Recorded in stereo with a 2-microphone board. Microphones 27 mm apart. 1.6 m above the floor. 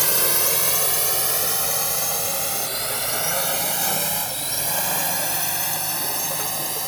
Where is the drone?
5° right (ahead or behind).